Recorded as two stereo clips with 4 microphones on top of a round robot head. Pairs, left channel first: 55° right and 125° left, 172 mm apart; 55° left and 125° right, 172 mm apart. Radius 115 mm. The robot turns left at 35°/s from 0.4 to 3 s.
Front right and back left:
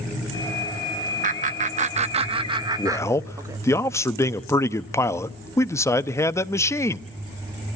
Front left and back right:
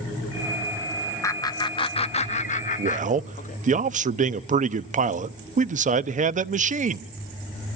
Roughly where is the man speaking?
Behind right.